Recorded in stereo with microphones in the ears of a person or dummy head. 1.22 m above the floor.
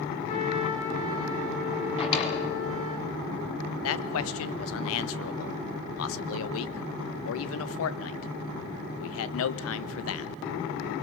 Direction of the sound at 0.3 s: 35° left (ahead or behind).